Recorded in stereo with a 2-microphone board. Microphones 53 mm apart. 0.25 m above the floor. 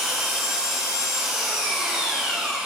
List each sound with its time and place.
0.0 s an engine running: 10° right (ahead or behind), 2.5 m